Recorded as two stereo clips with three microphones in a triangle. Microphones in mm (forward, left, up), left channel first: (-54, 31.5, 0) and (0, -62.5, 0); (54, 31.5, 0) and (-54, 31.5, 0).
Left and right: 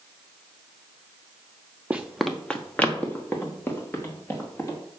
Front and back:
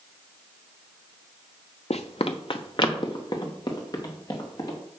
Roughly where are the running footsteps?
Ahead.